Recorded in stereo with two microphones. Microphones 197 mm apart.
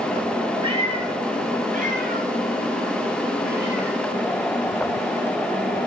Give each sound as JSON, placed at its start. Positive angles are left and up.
{"t": 0.6, "sound": "a cat meowing", "side_deg": -25, "distance_m": 3.5}